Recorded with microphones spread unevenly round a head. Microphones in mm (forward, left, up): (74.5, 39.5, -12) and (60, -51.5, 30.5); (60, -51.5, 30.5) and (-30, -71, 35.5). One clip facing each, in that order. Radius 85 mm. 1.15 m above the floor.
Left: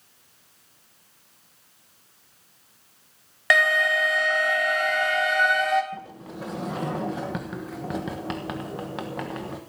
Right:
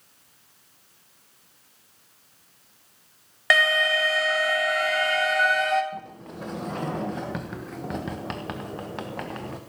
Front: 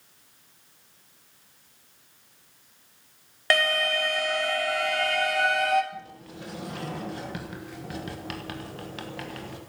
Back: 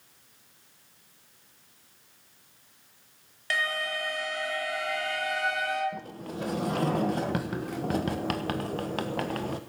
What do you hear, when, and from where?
3.5 s an alarm: 10° right, 2.5 m
5.9 s a sliding door: 150° left, 1.2 m